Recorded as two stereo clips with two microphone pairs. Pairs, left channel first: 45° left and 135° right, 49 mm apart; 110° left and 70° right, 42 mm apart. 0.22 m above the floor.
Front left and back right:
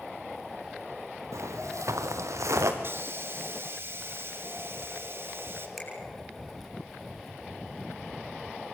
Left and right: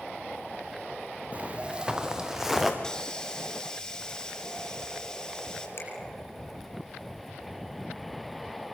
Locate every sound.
1.3 s footsteps: 120° right, 2.0 m; by 2.7 s 150° right, 3 m
2.8 s a hiss: 170° right, 2.5 m
5.8 s a finger snap: 130° left, 7.5 m